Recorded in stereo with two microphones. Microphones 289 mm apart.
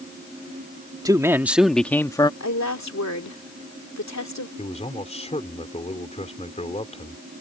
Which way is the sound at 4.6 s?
20° left (ahead or behind).